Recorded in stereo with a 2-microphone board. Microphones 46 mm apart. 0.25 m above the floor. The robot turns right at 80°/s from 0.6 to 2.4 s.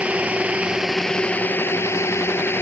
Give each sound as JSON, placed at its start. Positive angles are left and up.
{"t": 0.0, "sound": "a drone", "side_deg": -25}